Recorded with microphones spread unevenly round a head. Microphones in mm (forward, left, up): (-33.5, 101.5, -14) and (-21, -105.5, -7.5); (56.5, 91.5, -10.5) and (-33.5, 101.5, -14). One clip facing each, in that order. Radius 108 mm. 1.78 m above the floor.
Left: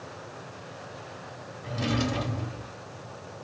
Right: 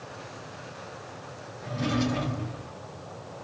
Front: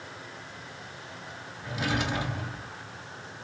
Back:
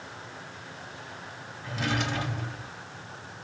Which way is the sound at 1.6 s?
70° left.